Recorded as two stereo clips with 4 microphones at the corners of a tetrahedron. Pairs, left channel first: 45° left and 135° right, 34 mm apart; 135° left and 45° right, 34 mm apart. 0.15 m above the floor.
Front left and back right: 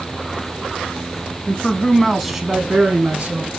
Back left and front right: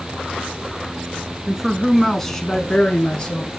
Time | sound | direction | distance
1.5 | a man speaking | 25° left | 1.2 m